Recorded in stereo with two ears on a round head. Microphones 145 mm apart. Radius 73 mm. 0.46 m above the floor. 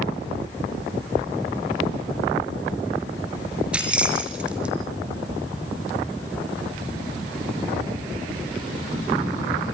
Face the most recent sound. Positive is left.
turn(degrees=-5)  # may be behind; listen again after turning